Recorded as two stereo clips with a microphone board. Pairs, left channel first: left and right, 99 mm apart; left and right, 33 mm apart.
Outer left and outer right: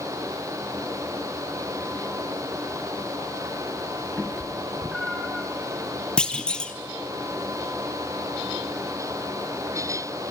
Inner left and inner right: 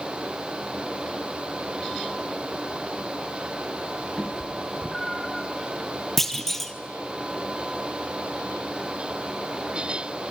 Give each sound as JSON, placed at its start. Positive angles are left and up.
{"t": 4.2, "sound": "a cat meowing", "side_deg": 0, "distance_m": 2.5}
{"t": 6.2, "sound": "a clunk", "side_deg": 10, "distance_m": 1.3}